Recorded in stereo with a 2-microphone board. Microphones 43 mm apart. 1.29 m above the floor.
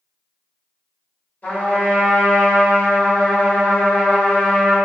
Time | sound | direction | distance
1.4 | a trumpet | 35° left (ahead or behind) | 1.3 m